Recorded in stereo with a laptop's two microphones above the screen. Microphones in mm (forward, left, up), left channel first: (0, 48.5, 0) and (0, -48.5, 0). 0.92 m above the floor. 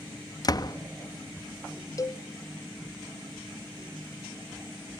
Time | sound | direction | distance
0.4 | a door slam | 40° left (ahead or behind) | 0.6 m
2.0 | a cowbell | 35° left (ahead or behind) | 0.6 m